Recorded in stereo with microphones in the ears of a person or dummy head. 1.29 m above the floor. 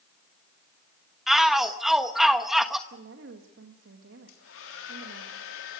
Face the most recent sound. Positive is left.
turn(degrees=85)